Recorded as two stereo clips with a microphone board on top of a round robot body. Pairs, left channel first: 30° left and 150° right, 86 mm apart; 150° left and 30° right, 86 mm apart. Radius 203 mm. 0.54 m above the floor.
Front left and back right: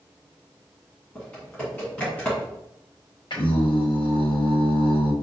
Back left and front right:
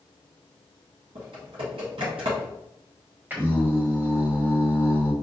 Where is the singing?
35° left, 1.4 m.